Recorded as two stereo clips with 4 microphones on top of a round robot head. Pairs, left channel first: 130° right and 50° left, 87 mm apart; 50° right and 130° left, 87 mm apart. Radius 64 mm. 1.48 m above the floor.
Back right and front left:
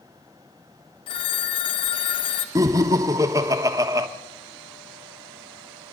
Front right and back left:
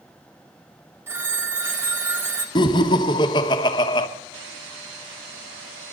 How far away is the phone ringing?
About 1.2 m.